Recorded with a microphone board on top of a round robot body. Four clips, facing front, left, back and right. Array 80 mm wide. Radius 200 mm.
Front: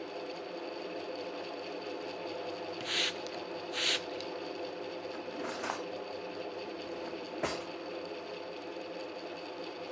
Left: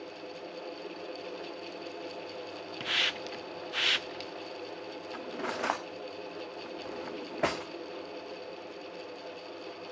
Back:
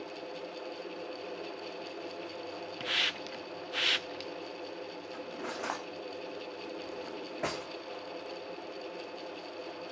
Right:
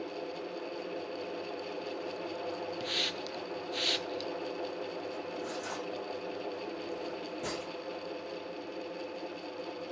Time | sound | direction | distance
2.8 | a hiss | 115° left | 0.7 m
5.1 | cutlery clinking | 90° left | 1.4 m